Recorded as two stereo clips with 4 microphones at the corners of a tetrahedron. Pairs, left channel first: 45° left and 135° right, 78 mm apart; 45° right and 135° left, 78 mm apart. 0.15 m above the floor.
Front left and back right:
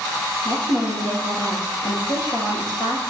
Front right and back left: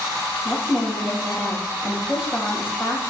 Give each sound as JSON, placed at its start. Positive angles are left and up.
{"t": 0.5, "sound": "a woman speaking", "azimuth_deg": 55, "distance_m": 3.5}